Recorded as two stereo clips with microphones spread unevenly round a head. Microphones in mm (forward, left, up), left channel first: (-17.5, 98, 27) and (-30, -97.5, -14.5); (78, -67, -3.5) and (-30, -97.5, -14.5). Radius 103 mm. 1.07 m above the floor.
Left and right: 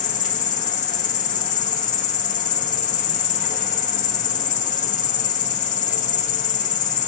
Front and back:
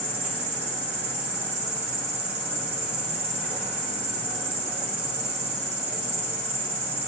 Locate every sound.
0.0 s an insect: 140° left, 0.7 m